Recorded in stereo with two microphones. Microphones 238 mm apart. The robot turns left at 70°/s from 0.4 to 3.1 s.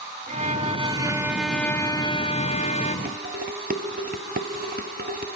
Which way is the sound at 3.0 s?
40° right (ahead or behind).